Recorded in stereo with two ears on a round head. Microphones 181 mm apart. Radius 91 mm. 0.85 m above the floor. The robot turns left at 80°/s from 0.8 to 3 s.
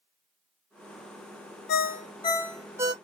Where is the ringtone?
70° left, 0.6 m; by 2.9 s 30° right, 0.6 m.